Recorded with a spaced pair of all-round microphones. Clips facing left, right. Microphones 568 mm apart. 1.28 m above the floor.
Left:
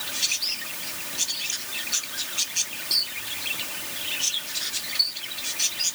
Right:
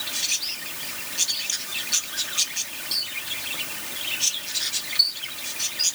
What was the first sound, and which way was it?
Only background noise.